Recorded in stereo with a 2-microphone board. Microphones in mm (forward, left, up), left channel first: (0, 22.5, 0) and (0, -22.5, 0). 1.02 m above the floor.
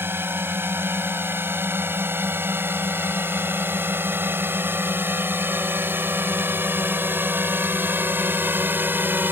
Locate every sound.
0.0 s a drone: 55° right (ahead or behind); by 9.3 s 45° right (ahead or behind)